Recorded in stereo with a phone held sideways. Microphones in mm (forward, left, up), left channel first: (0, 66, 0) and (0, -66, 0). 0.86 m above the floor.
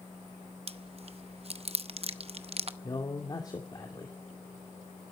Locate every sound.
0.7 s chewing: 50° right (ahead or behind), 0.7 m
2.8 s a man speaking: 30° left (ahead or behind), 2 m